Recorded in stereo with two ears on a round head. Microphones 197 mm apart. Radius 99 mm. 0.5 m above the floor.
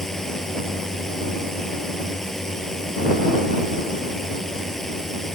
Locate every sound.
0.0 s a drone: centre (ahead or behind)